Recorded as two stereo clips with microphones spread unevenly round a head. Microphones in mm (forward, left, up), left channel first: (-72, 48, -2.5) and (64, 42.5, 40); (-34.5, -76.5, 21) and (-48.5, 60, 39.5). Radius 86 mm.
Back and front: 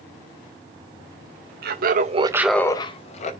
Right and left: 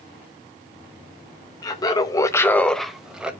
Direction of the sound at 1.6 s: 25° right.